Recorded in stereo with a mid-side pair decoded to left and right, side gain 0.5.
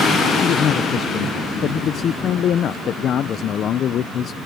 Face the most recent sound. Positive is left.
turn(degrees=55)